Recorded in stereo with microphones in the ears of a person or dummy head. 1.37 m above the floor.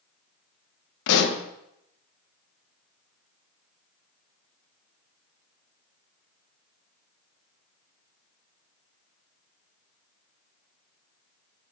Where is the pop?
70° left (ahead or behind), 1.0 m.